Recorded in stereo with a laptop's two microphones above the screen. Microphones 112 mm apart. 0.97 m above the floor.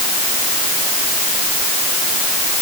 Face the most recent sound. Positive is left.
No sound to turn to.